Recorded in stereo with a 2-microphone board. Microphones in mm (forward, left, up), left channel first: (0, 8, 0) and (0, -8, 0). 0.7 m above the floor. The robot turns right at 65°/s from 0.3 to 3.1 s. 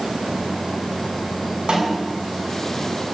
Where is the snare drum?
45° right (ahead or behind), 7 m; by 2.1 s 20° right (ahead or behind), 7 m.